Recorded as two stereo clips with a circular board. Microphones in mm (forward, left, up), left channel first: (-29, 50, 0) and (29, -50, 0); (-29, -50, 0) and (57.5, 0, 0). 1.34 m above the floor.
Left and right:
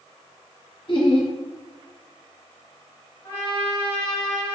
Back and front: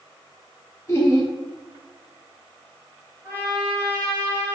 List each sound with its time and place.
0.9 s laughter: 155° left, 0.9 m
3.2 s a trumpet: 70° left, 1.2 m